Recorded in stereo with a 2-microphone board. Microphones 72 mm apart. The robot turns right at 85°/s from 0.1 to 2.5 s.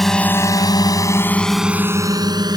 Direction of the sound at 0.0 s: 5° left (ahead or behind).